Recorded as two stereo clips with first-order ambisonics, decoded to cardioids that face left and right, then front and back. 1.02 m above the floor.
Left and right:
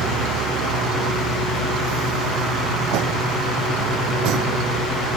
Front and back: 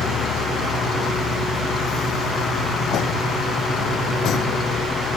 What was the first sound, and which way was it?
A vehicle, 55° right.